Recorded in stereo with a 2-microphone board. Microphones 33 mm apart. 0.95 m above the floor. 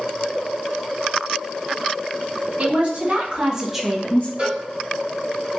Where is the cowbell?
40° right (ahead or behind), 2 m.